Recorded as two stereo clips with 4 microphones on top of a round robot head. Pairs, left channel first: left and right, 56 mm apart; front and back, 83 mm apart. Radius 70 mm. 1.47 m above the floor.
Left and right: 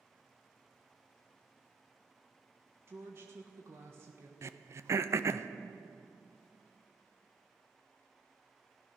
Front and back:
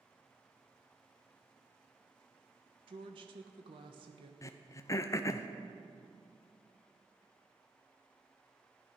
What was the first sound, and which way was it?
A woman speaking, 150° right.